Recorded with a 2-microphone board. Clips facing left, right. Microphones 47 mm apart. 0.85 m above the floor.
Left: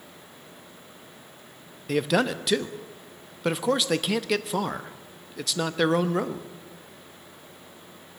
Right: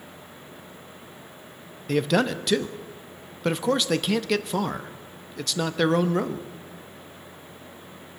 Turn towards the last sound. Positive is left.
turn(degrees=0)  # may be behind; listen again after turning